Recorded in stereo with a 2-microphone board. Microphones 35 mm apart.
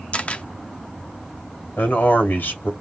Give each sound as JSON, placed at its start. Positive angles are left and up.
{"t": 0.1, "sound": "a camera shutter", "side_deg": 35, "distance_m": 0.6}
{"t": 1.8, "sound": "a man speaking", "side_deg": 70, "distance_m": 2.0}